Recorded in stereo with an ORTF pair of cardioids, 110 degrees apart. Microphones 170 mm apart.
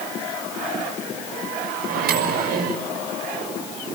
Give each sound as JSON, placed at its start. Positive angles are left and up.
{"t": 1.9, "sound": "a microwave", "azimuth_deg": -60, "distance_m": 6.0}